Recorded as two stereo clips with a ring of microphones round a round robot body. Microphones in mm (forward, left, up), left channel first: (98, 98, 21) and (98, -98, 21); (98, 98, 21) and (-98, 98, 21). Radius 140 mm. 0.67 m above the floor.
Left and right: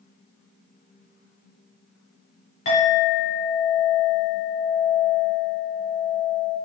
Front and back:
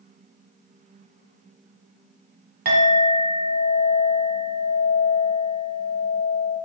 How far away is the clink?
About 1.4 m.